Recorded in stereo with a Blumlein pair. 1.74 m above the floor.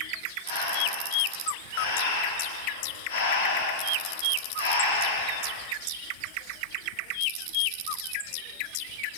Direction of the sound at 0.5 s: 55° left.